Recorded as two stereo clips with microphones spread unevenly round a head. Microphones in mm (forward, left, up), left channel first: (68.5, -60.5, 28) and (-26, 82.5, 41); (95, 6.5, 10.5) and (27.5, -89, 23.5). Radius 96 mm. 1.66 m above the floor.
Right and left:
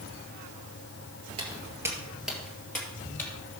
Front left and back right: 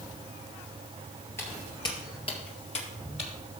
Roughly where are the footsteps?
Behind left.